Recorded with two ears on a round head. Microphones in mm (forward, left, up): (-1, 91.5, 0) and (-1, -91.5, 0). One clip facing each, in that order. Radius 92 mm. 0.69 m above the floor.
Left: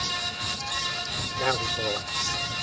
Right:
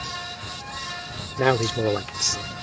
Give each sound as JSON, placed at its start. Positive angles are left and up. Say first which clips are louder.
{"t": 1.4, "sound": "a man speaking", "louder": "right 8 dB", "side_deg": -65}